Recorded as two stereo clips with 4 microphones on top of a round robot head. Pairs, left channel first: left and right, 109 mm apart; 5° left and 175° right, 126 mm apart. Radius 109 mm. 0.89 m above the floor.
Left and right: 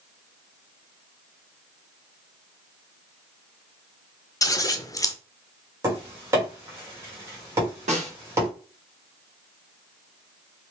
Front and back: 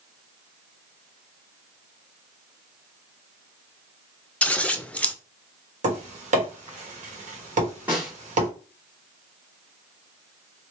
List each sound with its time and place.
4.4 s scissors: 75° left, 0.6 m
5.8 s tapping: 155° right, 1.3 m
7.9 s a snare drum: 90° right, 1.5 m